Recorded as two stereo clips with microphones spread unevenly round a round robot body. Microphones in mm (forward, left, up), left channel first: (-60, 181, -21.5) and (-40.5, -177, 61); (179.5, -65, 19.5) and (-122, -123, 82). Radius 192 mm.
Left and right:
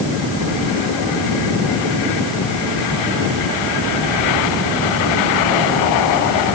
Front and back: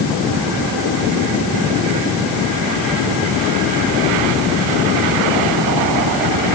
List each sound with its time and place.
Only background noise.